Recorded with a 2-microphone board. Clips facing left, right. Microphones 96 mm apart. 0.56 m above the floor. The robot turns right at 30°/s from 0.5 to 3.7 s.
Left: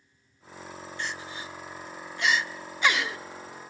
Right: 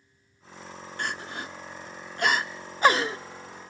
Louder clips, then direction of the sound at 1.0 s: Right 4 dB; 55° right (ahead or behind).